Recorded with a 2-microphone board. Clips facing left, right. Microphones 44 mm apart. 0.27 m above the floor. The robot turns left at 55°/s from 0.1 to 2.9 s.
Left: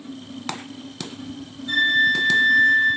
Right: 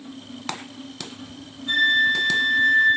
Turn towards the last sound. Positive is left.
turn(degrees=-105)